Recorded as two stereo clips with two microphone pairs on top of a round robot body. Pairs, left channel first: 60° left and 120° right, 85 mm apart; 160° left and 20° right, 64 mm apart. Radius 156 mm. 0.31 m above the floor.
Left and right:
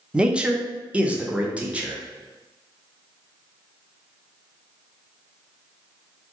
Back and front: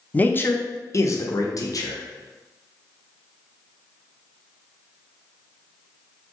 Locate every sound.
0.1 s a man speaking: 160° right, 0.9 m; by 2.0 s 175° left, 1.5 m